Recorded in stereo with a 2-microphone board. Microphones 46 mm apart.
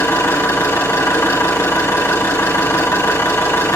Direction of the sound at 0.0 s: 85° left.